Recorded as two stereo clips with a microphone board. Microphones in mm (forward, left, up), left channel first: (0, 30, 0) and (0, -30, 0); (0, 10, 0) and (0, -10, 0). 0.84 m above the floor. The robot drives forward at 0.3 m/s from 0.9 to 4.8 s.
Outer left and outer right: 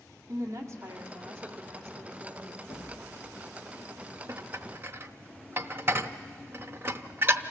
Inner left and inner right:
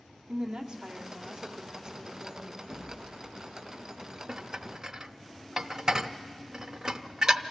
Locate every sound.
0.3 s a woman speaking: 50° right (ahead or behind), 2 m; by 2.6 s 45° right (ahead or behind), 2.5 m
2.7 s an explosion: 65° left (ahead or behind), 1.0 m; by 3.5 s 75° left (ahead or behind), 1.0 m
4.3 s dishes clattering: 45° right (ahead or behind), 0.5 m; by 7.4 s 35° right (ahead or behind), 0.6 m